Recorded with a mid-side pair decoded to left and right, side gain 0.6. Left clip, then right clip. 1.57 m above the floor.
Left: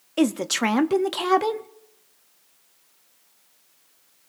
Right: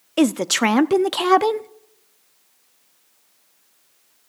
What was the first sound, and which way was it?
A woman speaking, 25° right.